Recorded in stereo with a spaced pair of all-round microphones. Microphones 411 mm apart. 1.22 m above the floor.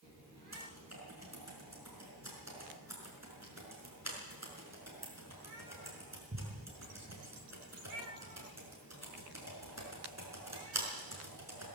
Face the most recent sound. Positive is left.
turn(degrees=-40)  # may be behind; listen again after turning